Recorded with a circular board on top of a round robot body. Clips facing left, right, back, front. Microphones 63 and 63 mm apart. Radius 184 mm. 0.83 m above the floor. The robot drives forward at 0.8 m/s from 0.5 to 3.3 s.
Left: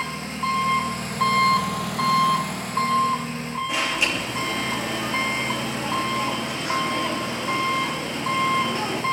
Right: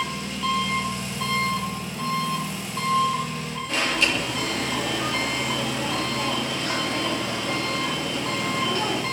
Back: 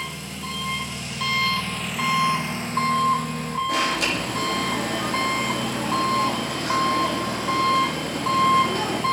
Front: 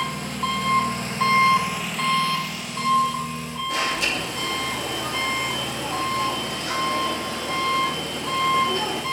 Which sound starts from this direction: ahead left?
An engine running, at 0.0 s.